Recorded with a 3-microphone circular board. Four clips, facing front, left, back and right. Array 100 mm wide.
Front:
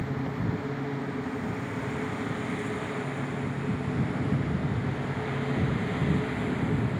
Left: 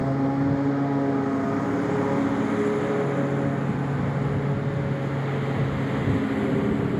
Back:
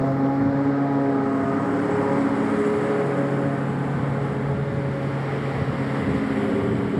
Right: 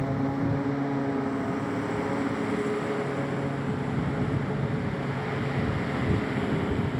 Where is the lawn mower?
165° left; by 7.0 s 155° left.